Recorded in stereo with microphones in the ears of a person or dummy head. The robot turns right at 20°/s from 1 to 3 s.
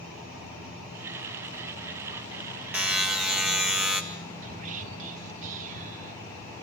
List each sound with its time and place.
2.7 s a buzzer: 5° right (ahead or behind), 1.5 m; by 4.0 s centre (ahead or behind), 1.5 m
4.4 s whispering: 40° right (ahead or behind), 1.3 m